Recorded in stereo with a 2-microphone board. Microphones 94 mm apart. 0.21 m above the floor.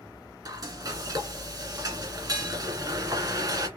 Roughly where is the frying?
Right.